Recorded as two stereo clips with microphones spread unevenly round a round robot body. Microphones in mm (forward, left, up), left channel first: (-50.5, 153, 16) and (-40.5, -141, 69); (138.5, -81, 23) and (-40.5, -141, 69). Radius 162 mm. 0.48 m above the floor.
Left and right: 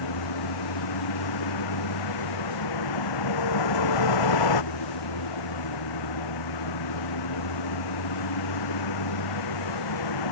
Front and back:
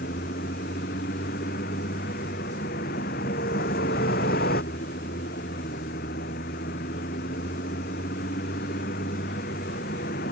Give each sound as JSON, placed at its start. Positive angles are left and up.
{"t": 0.0, "sound": "a vehicle", "azimuth_deg": 80}